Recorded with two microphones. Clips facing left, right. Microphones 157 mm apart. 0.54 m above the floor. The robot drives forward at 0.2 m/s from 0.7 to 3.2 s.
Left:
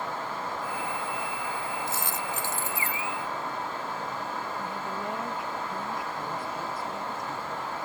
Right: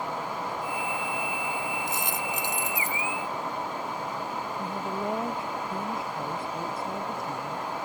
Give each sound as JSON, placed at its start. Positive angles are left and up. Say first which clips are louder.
{"t": 1.9, "sound": "a dropped coin", "louder": "right 1 dB", "side_deg": -20}
{"t": 4.6, "sound": "a woman speaking", "louder": "right 3 dB", "side_deg": -25}